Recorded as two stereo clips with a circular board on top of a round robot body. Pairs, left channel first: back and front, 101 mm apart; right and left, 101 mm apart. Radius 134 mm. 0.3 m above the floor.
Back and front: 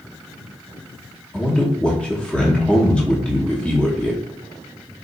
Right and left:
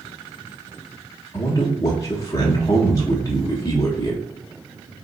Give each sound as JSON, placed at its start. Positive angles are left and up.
{"t": 1.3, "sound": "a man speaking", "azimuth_deg": -105, "distance_m": 1.0}